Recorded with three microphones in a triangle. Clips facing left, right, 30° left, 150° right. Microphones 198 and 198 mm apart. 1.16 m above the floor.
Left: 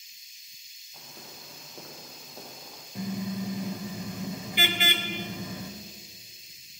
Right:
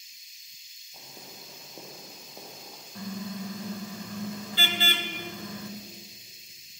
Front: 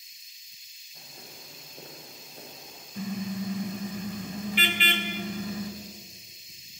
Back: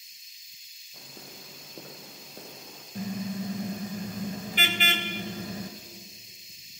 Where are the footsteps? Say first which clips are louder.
Even, back 2 dB; 160° right, 5 m; by 2.9 s 175° right, 5.5 m.